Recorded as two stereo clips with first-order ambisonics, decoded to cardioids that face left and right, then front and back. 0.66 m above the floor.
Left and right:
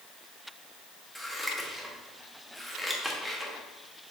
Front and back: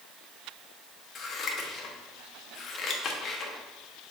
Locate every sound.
1.1 s scissors: straight ahead, 1.2 m